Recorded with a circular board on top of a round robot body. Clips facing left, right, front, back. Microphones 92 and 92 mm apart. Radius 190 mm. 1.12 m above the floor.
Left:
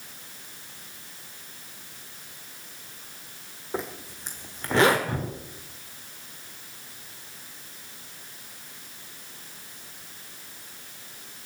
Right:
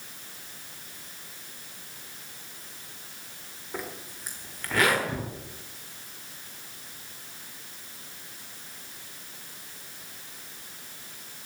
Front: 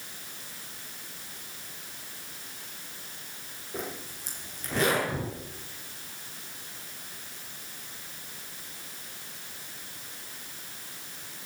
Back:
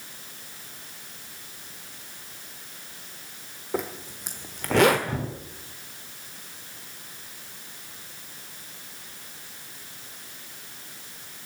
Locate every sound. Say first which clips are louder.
3.7 s a zipper: left 4 dB, back 7 dB; 155° left, 1.3 m
5.1 s a gunshot: left 2 dB, back 2 dB; 140° left, 7.5 m